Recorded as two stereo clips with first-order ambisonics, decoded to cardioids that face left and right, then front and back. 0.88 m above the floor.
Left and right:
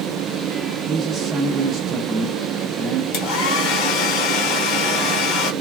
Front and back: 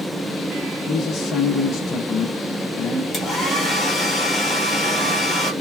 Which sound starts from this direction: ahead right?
A man speaking, at 0.9 s.